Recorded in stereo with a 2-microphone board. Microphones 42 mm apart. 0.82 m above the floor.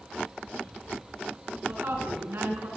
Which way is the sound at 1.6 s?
60° right (ahead or behind).